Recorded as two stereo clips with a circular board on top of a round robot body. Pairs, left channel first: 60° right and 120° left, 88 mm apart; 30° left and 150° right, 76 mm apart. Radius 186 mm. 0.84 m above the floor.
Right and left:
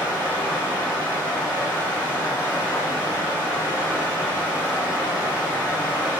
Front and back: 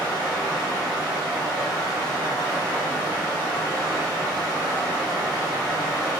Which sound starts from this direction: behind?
Running water, at 0.0 s.